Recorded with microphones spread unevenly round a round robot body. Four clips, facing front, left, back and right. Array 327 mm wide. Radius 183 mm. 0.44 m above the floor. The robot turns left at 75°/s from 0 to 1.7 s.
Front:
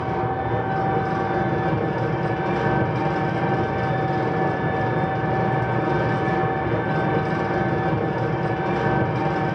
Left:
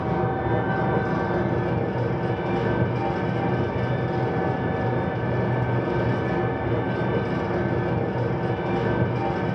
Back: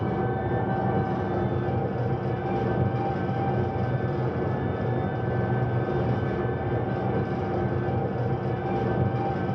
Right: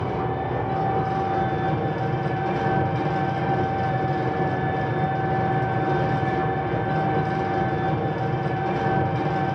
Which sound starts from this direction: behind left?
An engine running, at 0.0 s.